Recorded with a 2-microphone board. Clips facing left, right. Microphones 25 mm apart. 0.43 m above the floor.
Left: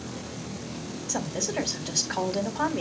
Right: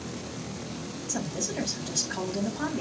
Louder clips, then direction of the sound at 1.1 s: Left 3 dB; 35° left (ahead or behind).